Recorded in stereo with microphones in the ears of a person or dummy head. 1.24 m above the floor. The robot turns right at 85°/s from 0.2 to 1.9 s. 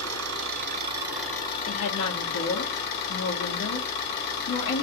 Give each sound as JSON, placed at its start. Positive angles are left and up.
{"t": 0.0, "sound": "an engine running", "azimuth_deg": -90, "distance_m": 2.0}
{"t": 1.7, "sound": "a woman speaking", "side_deg": 45, "distance_m": 1.4}